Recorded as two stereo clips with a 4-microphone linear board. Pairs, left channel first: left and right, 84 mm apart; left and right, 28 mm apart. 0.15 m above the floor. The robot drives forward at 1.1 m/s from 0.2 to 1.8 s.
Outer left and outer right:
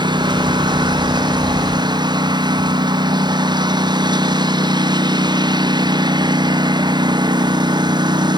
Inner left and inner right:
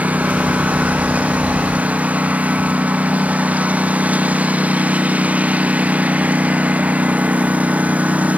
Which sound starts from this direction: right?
A lawn mower, at 0.0 s.